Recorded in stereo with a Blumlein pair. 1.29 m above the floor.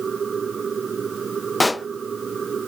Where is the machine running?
20° right.